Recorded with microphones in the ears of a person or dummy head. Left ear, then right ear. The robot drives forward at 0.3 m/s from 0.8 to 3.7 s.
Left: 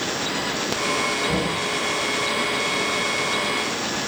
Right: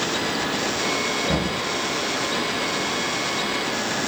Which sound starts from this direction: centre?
Knocking, at 1.2 s.